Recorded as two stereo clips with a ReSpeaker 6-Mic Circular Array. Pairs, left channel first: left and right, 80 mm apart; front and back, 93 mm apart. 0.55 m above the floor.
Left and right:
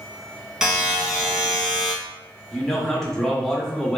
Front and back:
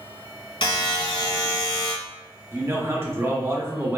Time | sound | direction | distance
0.6 | a buzzer | 10° right | 0.8 m
2.5 | a man speaking | 165° left | 0.7 m